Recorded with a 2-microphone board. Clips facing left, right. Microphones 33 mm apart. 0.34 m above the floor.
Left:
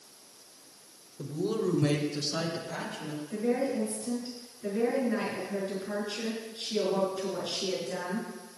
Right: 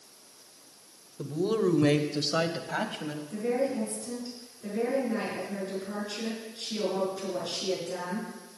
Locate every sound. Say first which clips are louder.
1.2 s a woman speaking: right 3 dB; 20° right (ahead or behind), 0.9 m; by 3.2 s 55° right (ahead or behind), 1.6 m
3.3 s a woman speaking: even; 20° left (ahead or behind), 5.5 m